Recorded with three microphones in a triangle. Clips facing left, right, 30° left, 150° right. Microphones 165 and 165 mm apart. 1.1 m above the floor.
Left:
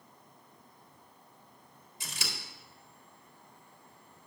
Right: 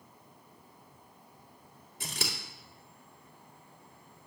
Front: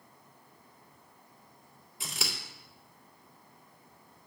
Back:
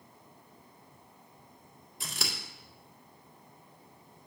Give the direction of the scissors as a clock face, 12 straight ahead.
2 o'clock.